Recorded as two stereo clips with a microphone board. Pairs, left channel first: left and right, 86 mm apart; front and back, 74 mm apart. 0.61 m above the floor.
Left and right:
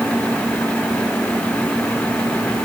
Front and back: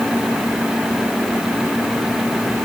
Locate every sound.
Only background noise.